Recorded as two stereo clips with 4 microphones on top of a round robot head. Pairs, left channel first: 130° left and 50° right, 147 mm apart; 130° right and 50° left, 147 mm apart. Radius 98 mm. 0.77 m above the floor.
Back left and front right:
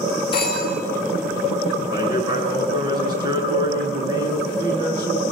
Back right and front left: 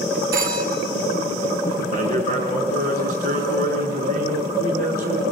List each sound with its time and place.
0.3 s a phone ringing: 75° left, 5.5 m
1.9 s a man speaking: 15° left, 8.5 m